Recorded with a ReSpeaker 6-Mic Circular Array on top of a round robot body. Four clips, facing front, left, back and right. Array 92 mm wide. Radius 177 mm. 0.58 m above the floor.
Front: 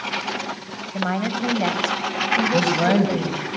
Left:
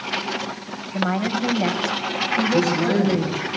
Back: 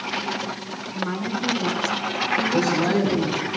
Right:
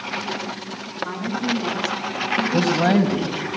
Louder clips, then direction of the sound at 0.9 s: Left 5 dB, front 3 dB; 35° left.